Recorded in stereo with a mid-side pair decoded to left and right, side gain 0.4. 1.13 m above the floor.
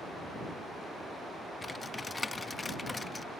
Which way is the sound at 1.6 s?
30° left.